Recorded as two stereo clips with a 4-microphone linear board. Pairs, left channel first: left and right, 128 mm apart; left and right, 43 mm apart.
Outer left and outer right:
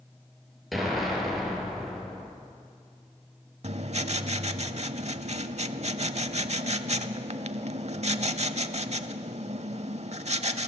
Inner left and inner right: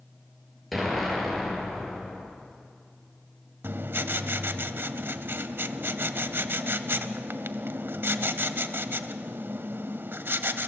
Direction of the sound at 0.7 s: Centre (ahead or behind).